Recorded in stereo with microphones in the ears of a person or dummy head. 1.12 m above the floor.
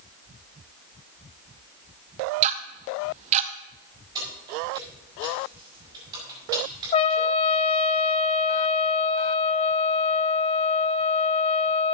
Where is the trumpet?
35° left (ahead or behind), 0.5 m.